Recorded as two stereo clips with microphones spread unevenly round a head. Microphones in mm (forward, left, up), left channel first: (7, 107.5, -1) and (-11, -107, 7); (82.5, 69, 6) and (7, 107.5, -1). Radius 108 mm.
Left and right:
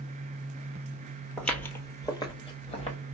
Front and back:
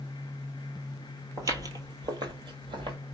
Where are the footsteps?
175° left, 1.1 m; by 3.0 s 145° left, 1.6 m.